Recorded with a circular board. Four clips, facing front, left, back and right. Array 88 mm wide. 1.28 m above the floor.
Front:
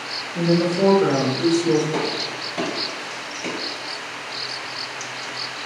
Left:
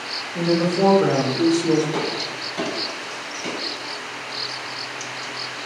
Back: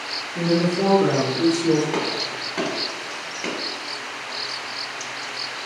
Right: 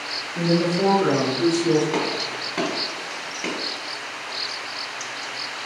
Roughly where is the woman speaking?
Left.